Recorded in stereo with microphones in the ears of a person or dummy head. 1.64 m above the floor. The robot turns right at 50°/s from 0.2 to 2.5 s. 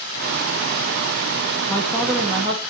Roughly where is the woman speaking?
Behind.